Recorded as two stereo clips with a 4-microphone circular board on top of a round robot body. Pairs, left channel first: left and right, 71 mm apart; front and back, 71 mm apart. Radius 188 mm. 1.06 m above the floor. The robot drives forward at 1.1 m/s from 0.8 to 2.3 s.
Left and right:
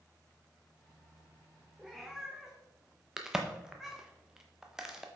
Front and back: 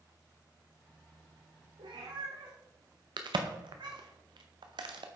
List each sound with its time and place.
1.8 s a cat meowing: 175° right, 0.6 m; by 4.0 s straight behind, 1.1 m
3.2 s a crack: 175° right, 0.8 m